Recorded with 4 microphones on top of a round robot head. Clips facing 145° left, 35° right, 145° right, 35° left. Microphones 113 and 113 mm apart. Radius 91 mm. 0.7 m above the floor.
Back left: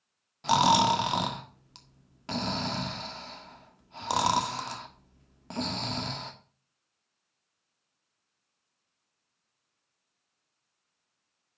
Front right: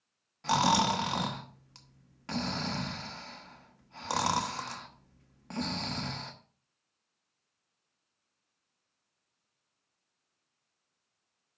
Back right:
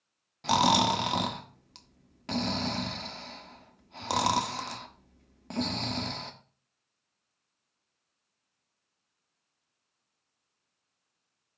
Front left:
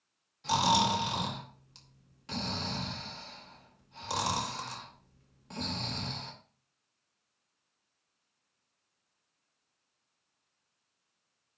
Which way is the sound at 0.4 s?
145° right.